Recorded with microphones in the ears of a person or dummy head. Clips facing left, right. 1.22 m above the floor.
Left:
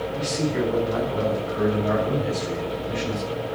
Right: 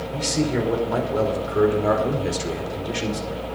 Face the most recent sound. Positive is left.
turn(degrees=-85)